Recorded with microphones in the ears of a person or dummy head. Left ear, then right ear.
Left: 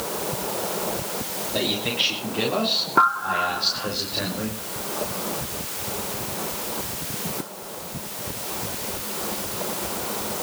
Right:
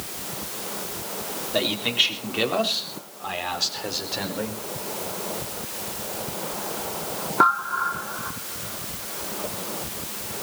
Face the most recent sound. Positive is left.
turn(degrees=-80)